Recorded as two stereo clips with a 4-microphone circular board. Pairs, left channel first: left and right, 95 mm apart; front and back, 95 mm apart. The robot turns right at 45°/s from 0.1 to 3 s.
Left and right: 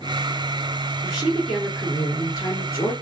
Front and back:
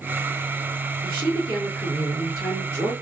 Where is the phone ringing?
I don't hear a phone ringing.